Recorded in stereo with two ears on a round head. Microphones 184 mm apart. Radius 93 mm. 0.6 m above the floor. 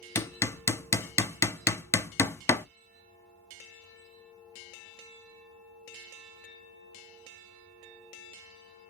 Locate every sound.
0.1 s hammering: 10° left (ahead or behind), 0.6 m